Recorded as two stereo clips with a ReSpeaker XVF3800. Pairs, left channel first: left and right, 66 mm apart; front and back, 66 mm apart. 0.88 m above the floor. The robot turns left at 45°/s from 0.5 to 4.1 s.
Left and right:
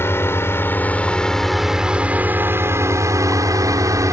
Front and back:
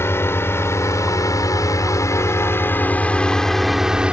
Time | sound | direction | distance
0.0 | a drone | 45° left | ?